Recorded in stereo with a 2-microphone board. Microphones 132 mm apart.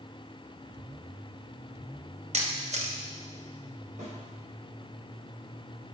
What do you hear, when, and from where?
2.3 s a camera shutter: 60° right (ahead or behind), 1.0 m
4.0 s a snare drum: 85° right, 3.5 m